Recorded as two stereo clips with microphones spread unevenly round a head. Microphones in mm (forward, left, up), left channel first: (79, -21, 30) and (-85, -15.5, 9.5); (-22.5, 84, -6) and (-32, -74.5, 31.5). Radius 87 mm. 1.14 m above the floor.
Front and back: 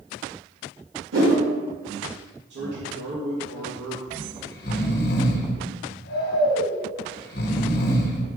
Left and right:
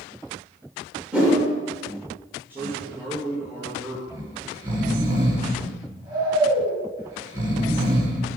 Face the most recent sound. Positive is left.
turn(degrees=-20)